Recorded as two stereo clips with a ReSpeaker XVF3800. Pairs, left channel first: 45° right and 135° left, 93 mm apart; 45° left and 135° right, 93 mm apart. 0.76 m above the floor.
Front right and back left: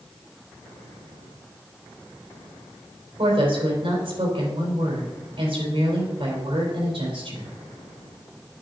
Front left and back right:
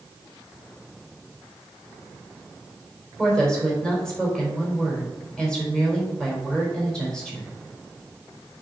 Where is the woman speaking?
125° left, 4 m.